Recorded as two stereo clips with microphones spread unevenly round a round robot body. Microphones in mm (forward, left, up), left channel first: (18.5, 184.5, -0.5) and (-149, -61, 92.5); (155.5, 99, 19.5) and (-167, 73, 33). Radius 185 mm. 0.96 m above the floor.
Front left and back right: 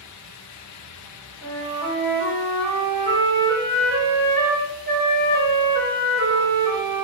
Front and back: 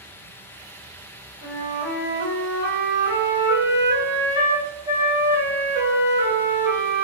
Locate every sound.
1.4 s a flute: 20° right, 1.8 m